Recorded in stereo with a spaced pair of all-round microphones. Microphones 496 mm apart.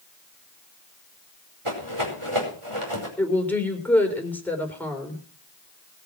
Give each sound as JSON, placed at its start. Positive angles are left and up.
{"t": 1.6, "sound": "a rattle", "side_deg": -80, "distance_m": 5.0}
{"t": 3.2, "sound": "a woman speaking", "side_deg": 5, "distance_m": 4.0}